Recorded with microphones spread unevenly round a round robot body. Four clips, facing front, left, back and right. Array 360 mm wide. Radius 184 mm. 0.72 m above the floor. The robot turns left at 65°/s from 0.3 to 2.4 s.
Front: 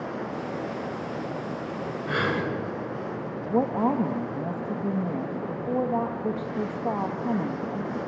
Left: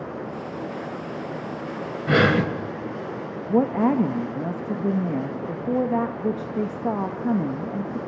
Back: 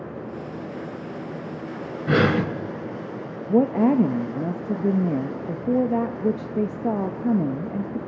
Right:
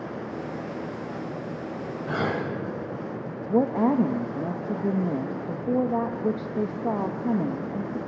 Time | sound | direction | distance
2.1 | breathing | 150° left | 1.2 m
3.5 | a woman speaking | 160° left | 1.0 m